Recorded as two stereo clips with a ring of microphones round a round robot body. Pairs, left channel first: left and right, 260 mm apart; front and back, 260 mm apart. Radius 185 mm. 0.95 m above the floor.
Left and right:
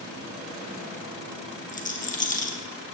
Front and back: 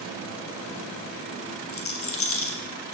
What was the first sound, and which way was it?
A rattle, 30° left.